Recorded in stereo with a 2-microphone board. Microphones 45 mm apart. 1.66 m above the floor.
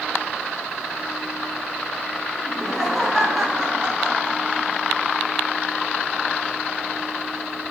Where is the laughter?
5° left (ahead or behind), 6.5 m; by 4.8 s 20° right (ahead or behind), 8 m.